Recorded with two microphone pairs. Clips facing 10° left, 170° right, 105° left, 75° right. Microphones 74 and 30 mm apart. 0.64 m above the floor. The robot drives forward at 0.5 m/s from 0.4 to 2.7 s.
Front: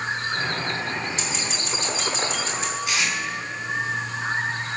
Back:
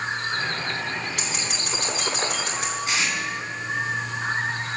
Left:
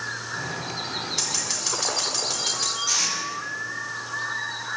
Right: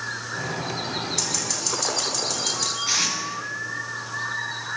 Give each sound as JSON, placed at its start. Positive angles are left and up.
{"t": 1.2, "sound": "scissors", "azimuth_deg": 170, "distance_m": 4.5}
{"t": 2.9, "sound": "tape being pulled", "azimuth_deg": -115, "distance_m": 4.0}